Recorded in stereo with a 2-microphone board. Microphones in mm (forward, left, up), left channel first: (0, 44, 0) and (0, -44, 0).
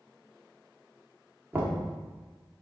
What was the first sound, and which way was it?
Knocking, 20° right (ahead or behind).